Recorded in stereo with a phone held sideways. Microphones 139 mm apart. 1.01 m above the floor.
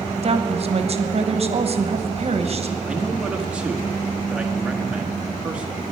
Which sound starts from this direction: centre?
A man speaking, at 2.9 s.